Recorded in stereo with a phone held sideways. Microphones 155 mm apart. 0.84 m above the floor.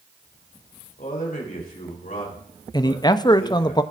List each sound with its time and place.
1.0 s a man speaking: 60° left (ahead or behind), 3.5 m
2.7 s a man speaking: 25° left (ahead or behind), 0.5 m